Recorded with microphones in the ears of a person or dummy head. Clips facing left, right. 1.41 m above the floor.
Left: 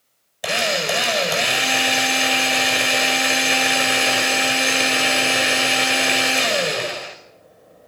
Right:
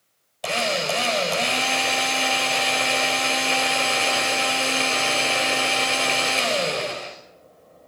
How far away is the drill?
About 4.5 m.